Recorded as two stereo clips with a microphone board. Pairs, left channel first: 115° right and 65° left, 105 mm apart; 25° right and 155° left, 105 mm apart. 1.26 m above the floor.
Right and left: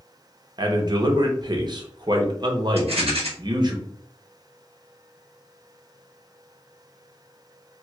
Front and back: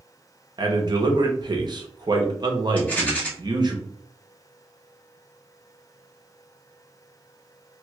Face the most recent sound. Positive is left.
turn(degrees=55)